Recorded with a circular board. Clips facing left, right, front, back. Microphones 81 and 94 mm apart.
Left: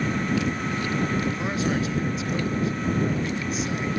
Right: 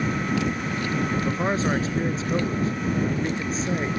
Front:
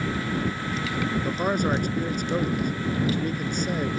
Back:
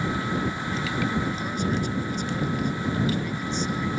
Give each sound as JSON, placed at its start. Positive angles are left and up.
{"t": 1.2, "sound": "a man speaking", "azimuth_deg": -35}